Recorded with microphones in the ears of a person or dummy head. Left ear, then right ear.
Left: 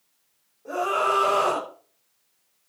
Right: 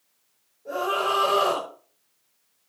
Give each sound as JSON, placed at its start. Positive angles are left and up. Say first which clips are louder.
{"t": 0.7, "sound": "a scream", "louder": "left 1 dB", "side_deg": 50, "distance_m": 7.0}